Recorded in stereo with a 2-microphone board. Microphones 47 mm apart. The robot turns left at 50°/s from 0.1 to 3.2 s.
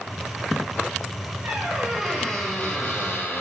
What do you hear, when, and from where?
1.4 s a squeak: 145° right, 2 m; by 3.4 s 130° left, 2 m